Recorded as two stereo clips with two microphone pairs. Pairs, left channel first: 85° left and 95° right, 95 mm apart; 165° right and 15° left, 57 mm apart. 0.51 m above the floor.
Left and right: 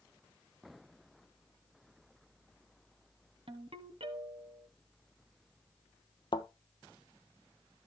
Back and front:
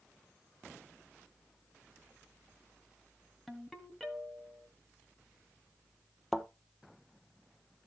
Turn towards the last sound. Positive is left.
turn(degrees=105)